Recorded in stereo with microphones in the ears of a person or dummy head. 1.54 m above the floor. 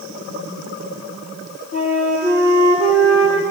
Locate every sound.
1.7 s a flute: 35° left (ahead or behind), 8.5 m